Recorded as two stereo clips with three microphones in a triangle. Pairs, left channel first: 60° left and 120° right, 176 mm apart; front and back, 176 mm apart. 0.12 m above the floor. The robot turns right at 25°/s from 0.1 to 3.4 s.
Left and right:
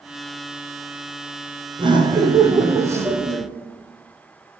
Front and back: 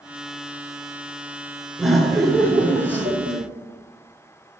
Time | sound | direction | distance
1.8 | laughter | 95° right | 1.3 m